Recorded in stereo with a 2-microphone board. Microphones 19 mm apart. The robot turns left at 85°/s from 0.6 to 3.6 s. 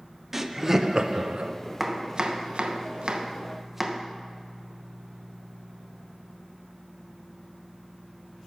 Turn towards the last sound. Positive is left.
turn(degrees=-20)  # may be behind; listen again after turning